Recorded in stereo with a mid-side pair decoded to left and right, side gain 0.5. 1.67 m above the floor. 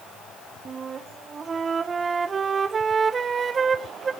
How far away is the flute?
About 1.3 m.